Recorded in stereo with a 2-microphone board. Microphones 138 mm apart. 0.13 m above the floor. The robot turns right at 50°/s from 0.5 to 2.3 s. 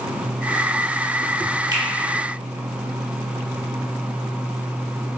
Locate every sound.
1.7 s a finger snap: 30° right (ahead or behind), 1.4 m; by 1.8 s 25° right (ahead or behind), 1.4 m